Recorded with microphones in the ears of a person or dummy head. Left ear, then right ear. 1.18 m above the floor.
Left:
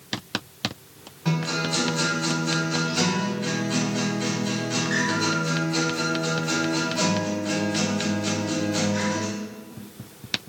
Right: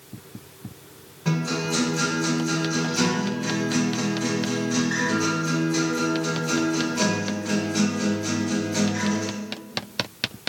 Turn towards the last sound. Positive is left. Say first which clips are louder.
# even
turn(degrees=20)  # may be behind; listen again after turning